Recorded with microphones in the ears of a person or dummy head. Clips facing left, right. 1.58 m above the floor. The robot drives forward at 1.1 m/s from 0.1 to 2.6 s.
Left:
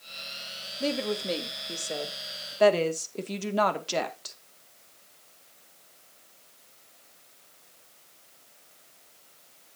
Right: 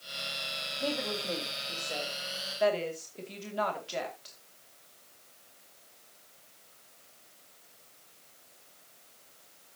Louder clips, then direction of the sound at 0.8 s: Left 5 dB; 35° left (ahead or behind).